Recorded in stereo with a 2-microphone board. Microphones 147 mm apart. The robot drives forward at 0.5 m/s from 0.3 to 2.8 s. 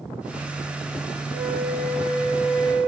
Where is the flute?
25° left (ahead or behind), 4 m; by 2.9 s 30° left (ahead or behind), 3.5 m.